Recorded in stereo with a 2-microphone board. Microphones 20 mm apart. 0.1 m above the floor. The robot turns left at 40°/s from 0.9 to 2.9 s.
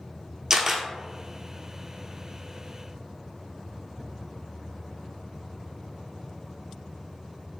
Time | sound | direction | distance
0.5 | a camera shutter | 25° right (ahead or behind) | 0.7 m